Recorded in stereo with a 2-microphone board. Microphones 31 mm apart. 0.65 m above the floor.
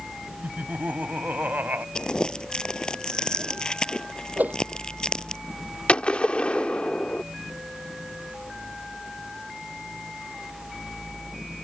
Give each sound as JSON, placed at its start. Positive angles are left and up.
{"t": 0.4, "sound": "laughter", "side_deg": -75}
{"t": 1.9, "sound": "crumpling", "side_deg": 25}
{"t": 4.4, "sound": "a whoosh", "side_deg": -70}
{"t": 5.9, "sound": "a gunshot", "side_deg": 40}